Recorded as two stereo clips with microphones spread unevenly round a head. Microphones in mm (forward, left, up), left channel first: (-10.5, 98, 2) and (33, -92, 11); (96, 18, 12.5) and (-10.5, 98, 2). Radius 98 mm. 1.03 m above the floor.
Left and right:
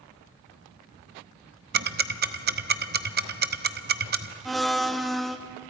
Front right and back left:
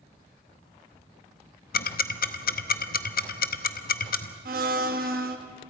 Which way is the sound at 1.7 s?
35° right.